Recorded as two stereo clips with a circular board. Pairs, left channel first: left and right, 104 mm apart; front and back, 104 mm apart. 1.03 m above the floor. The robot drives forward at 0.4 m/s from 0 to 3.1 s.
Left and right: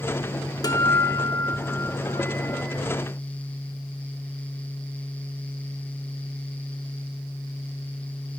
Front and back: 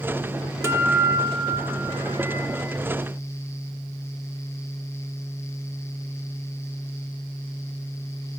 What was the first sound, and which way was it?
A guitar, 125° left.